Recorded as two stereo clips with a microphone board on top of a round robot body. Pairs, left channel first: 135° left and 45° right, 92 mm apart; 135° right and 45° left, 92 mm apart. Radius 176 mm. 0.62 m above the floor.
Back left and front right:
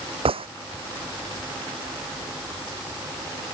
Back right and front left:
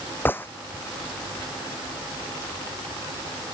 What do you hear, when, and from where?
0.2 s a gunshot: 65° right